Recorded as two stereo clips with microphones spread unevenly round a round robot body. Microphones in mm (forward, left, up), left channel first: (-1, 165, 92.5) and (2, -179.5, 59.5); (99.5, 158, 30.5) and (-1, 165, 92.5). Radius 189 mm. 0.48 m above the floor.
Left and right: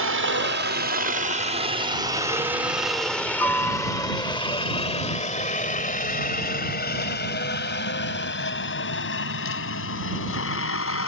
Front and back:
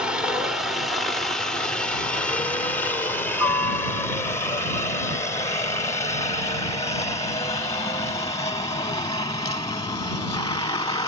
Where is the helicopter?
65° right; by 11.1 s 35° left.